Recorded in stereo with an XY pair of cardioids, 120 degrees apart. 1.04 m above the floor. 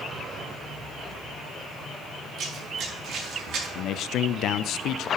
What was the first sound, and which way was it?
Running footsteps, 65° right.